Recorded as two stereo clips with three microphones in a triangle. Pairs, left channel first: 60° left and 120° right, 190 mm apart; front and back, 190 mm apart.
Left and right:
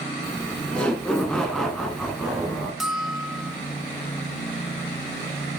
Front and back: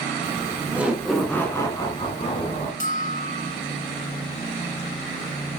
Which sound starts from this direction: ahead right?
A bell, at 2.8 s.